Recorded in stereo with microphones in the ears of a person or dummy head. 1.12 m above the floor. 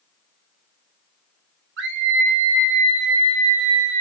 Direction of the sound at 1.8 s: 65° right (ahead or behind).